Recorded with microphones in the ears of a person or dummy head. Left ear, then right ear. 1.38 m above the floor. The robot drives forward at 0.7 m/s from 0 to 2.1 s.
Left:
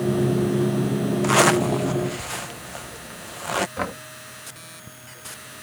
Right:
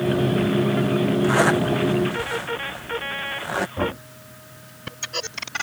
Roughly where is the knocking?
Left.